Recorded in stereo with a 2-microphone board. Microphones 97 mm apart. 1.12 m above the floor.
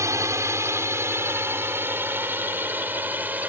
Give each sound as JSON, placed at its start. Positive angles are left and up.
{"t": 0.0, "sound": "a drone", "side_deg": -30}